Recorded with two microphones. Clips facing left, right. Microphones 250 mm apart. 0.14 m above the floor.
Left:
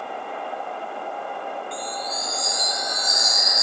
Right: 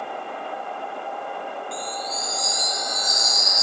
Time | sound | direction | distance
1.7 | a chime | 20° left (ahead or behind) | ?